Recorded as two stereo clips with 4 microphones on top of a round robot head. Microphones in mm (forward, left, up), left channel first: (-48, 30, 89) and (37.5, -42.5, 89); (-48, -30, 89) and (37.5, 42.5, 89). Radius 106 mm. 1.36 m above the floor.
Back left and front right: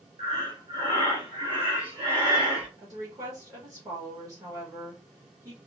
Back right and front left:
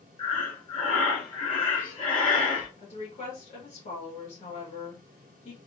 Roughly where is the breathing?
Right.